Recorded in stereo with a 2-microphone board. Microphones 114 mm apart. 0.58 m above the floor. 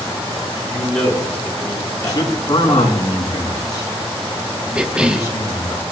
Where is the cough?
10° right (ahead or behind), 0.9 m.